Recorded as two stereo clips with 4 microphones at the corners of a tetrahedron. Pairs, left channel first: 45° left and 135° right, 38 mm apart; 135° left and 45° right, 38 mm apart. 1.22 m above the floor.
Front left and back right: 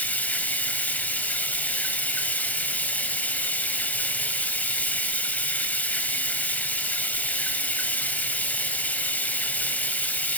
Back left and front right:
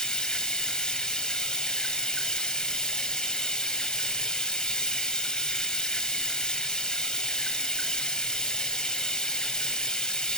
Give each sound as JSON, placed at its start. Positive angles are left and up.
{"t": 0.0, "sound": "running water", "azimuth_deg": 65, "distance_m": 1.6}